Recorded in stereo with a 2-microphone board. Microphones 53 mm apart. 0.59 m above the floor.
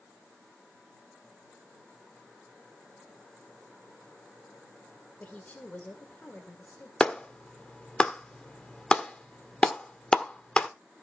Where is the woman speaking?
30° left (ahead or behind), 2.5 m.